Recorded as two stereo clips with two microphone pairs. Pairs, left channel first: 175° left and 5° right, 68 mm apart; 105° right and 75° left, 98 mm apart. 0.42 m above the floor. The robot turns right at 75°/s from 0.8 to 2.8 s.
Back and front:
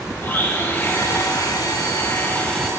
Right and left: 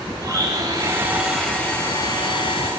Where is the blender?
120° left, 2 m; by 2.7 s 95° right, 2 m.